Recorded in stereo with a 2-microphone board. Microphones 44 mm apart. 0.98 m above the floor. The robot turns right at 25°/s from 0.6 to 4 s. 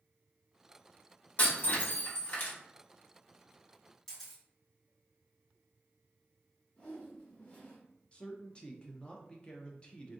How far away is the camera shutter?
About 1.5 m.